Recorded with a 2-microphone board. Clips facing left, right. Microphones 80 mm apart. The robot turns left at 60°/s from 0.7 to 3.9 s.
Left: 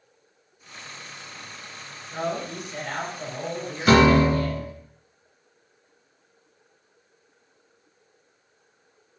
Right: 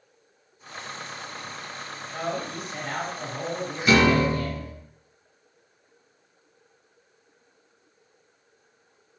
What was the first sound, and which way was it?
A man speaking, 55° left.